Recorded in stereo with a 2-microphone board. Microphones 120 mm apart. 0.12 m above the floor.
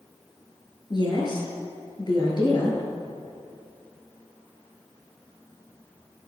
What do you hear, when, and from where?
0.9 s a woman speaking: 40° left (ahead or behind), 2 m